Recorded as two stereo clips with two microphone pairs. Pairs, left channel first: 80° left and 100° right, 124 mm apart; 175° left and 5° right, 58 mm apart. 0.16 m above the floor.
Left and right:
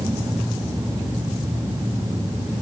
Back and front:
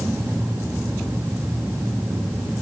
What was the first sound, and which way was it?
Only background noise.